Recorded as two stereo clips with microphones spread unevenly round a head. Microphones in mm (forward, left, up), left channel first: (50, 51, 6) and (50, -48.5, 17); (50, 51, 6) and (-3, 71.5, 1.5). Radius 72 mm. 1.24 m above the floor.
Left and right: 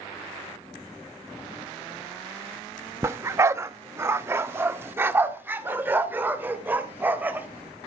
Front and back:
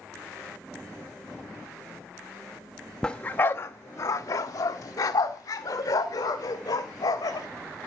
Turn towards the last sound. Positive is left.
turn(degrees=-20)